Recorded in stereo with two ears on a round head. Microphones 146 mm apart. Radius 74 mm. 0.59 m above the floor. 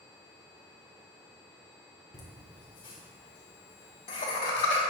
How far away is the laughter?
About 1.1 m.